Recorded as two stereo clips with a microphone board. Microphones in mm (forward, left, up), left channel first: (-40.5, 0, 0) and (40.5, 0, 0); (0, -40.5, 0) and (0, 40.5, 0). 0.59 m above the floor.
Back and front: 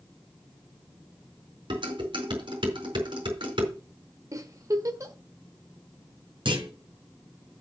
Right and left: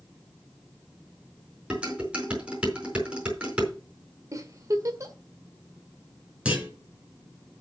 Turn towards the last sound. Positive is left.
turn(degrees=15)